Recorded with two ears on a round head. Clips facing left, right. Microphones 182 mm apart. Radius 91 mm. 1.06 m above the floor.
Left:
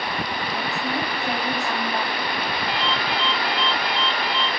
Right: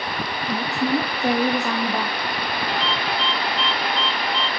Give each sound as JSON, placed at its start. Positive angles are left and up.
{"t": 0.5, "sound": "a woman speaking", "side_deg": -70, "distance_m": 1.3}
{"t": 2.7, "sound": "a ringtone", "side_deg": -90, "distance_m": 2.5}